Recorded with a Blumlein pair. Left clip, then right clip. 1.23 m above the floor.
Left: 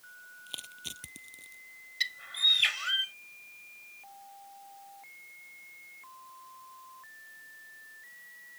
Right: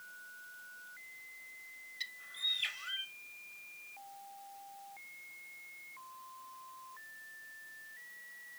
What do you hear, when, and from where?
0.5 s crushing: 45° left
2.0 s a bird: 25° left